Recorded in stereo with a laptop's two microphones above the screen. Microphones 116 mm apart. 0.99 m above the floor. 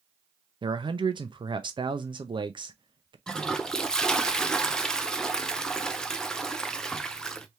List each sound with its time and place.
0.6 s a man speaking: 45° right (ahead or behind), 0.6 m
3.3 s a toilet flushing: 5° left (ahead or behind), 0.5 m